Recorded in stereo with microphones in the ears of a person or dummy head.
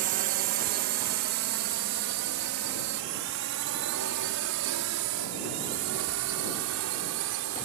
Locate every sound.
0.0 s a drone: 60° right (ahead or behind); by 7.7 s 85° right